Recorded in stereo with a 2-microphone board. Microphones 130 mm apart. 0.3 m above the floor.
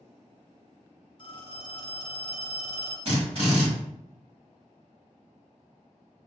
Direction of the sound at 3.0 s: 50° right (ahead or behind).